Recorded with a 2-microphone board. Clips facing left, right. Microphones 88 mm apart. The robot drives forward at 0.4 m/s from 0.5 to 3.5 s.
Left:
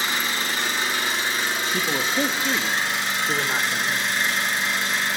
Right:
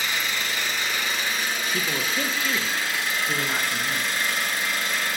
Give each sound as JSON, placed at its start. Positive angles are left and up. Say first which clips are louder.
{"t": 0.0, "sound": "an engine running", "louder": "left 2 dB", "side_deg": 35, "distance_m": 4.0}
{"t": 1.7, "sound": "a man speaking", "louder": "left 4 dB", "side_deg": 15, "distance_m": 0.9}